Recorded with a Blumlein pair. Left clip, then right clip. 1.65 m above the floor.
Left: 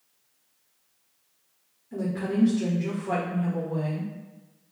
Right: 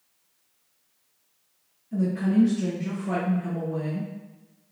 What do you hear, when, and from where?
1.9 s a woman speaking: 15° left, 1.5 m